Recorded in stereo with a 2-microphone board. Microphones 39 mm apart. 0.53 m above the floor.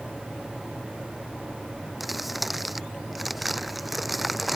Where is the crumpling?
5° right (ahead or behind).